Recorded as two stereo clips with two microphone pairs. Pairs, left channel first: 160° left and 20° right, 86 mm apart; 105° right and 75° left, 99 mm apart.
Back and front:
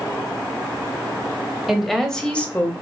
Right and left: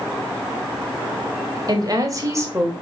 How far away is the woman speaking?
About 1.7 m.